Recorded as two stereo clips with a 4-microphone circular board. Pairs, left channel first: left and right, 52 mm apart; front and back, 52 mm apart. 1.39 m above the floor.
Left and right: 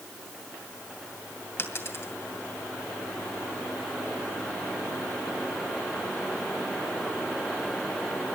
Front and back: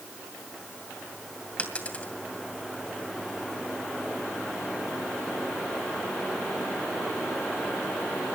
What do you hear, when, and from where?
1.6 s a dropped coin: 60° left, 2.5 m